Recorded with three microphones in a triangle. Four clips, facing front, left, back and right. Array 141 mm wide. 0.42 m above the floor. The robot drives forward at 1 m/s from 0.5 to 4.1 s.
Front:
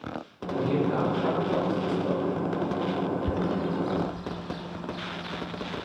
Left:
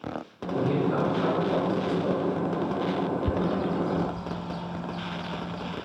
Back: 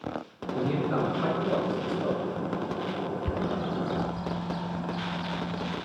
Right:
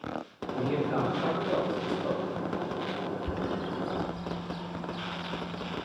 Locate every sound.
0.6 s a man speaking: 150° left, 6.5 m; by 2.2 s 160° left, 8 m
3.2 s a bird: 105° left, 0.7 m; by 5.8 s 150° left, 1.2 m